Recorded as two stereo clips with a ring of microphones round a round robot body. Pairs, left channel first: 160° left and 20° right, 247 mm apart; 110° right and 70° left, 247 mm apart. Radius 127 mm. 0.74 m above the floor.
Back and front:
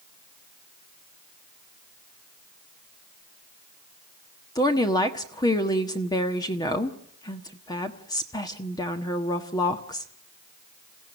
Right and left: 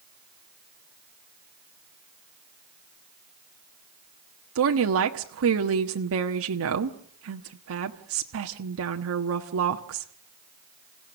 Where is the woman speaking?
85° left, 1.3 m.